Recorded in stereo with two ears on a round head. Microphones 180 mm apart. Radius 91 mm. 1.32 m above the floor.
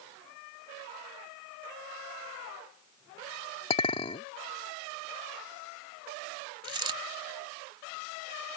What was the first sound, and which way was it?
A clink, 30° left (ahead or behind).